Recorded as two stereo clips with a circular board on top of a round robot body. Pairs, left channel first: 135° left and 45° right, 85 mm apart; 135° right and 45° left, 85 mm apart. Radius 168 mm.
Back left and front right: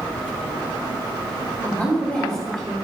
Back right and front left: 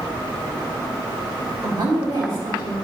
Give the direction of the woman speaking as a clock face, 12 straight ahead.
10 o'clock.